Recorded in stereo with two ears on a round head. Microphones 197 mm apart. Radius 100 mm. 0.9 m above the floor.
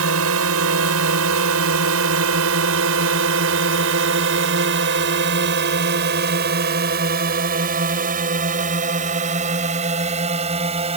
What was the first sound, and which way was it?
A drone, 75° right (ahead or behind).